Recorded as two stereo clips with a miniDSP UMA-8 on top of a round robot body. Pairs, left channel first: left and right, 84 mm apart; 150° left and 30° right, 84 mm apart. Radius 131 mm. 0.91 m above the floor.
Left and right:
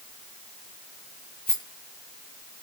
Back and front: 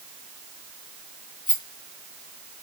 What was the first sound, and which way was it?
A rattle, 170° left.